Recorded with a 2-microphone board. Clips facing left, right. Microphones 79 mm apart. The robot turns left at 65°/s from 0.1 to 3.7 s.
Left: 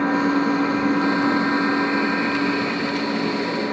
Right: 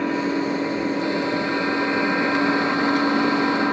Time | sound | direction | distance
0.0 | an engine running | 130° left | 3.5 m